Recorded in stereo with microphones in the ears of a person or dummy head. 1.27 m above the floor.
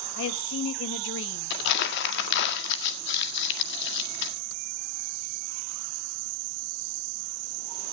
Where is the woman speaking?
70° left (ahead or behind), 1.5 m.